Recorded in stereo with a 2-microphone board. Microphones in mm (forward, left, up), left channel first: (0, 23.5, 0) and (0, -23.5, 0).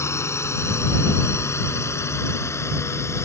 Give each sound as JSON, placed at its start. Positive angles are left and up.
{"t": 0.0, "sound": "a drone", "side_deg": 75}